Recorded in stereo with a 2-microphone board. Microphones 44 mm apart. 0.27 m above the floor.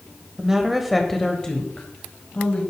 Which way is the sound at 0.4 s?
15° right (ahead or behind).